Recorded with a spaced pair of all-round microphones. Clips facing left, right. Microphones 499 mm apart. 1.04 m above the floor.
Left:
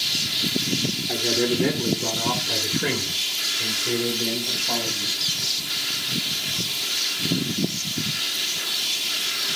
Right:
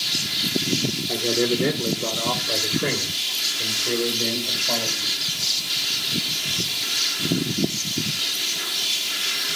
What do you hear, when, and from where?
1.1 s a man speaking: 10° left (ahead or behind), 2.5 m; by 5.1 s 5° left (ahead or behind), 5 m